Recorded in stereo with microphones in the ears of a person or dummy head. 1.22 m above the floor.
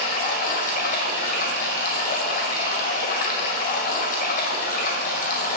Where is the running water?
50° left (ahead or behind), 1.8 m.